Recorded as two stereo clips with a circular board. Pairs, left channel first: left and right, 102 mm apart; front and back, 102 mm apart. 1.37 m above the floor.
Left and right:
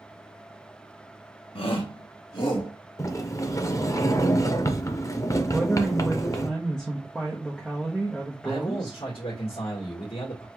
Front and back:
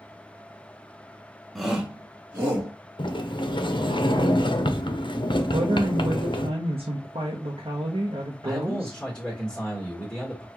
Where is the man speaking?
85° left, 1.5 m.